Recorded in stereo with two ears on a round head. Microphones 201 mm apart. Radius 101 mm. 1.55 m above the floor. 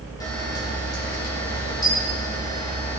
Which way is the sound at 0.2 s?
15° left (ahead or behind).